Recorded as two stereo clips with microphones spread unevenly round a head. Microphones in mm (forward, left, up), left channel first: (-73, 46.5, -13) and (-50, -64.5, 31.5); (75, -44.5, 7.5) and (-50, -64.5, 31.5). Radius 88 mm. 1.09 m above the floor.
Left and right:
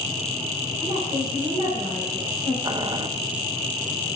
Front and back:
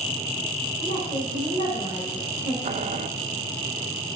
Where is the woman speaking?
35° right, 4 m.